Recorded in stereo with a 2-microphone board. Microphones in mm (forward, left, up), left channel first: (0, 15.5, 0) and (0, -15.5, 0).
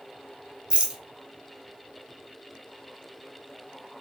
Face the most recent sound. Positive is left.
turn(degrees=-35)  # may be behind; listen again after turning